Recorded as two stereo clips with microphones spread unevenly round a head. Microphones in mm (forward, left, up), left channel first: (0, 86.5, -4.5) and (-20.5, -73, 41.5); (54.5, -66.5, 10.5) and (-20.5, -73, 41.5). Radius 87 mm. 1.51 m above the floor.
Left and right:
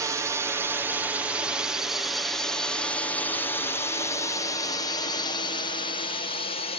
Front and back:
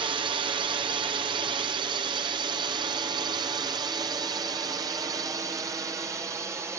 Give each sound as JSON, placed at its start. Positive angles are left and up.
{"t": 0.0, "sound": "a drone", "azimuth_deg": -175}